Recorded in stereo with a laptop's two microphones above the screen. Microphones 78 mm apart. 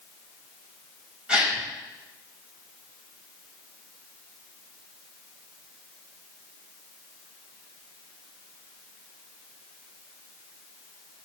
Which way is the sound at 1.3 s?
15° right (ahead or behind).